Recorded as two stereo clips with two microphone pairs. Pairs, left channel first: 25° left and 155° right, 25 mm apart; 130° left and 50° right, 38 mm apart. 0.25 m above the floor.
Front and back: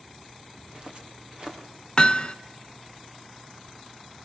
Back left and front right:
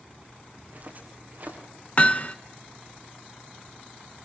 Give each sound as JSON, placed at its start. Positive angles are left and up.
{"t": 0.6, "sound": "footsteps", "azimuth_deg": -95, "distance_m": 5.0}
{"t": 2.0, "sound": "hammering", "azimuth_deg": 80, "distance_m": 0.9}